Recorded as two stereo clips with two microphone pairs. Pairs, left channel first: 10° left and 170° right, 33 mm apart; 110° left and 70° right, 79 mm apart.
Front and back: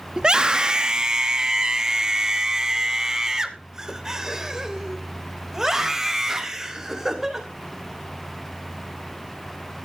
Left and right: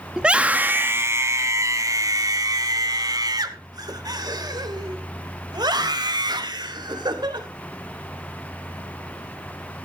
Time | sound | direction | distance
0.2 | a scream | 145° right | 1.1 m